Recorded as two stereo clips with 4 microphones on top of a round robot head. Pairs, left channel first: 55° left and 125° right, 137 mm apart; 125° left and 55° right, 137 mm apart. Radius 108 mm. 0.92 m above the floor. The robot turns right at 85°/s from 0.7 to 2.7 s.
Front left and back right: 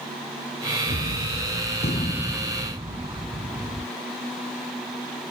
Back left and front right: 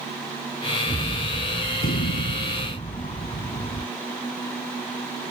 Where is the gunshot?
15° left; by 3.9 s 170° left.